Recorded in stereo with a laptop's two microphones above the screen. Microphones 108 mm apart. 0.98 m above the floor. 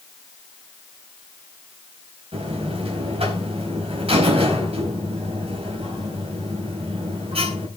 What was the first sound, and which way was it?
A buzzer, 65° right (ahead or behind).